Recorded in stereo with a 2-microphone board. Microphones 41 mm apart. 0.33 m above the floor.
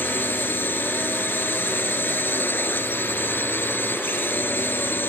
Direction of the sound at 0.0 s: 60° left (ahead or behind).